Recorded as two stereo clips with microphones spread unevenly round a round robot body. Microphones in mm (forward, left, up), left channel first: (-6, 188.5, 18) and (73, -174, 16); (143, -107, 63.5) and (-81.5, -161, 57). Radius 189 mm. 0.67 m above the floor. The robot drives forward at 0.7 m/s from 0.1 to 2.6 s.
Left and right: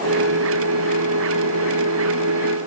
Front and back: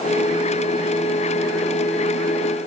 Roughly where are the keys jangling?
I don't hear keys jangling.